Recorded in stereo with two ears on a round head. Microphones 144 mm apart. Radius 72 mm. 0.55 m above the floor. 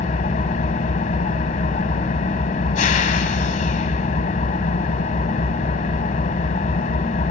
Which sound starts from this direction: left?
An engine running, at 0.0 s.